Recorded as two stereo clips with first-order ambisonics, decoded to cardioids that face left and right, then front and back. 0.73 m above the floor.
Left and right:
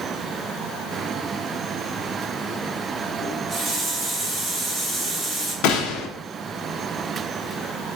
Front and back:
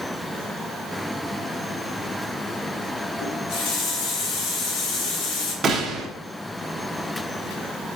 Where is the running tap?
15° right, 1.5 m.